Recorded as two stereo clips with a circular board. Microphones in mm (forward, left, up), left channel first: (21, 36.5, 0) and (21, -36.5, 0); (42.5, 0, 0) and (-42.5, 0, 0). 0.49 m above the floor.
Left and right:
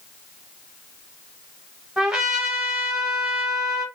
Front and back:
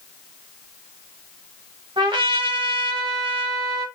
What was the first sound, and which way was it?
A trumpet, 175° right.